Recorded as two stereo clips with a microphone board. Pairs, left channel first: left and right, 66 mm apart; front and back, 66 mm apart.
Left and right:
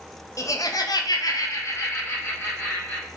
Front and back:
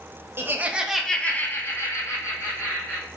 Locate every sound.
0.4 s laughter: 130° left, 0.6 m; by 3.1 s 25° left, 1.3 m